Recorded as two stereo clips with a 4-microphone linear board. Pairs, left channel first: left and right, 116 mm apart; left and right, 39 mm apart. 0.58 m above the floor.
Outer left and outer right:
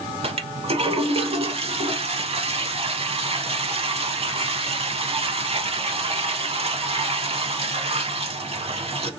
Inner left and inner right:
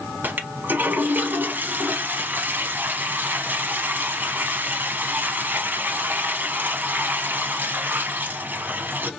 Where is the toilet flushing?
60° right (ahead or behind), 0.7 m.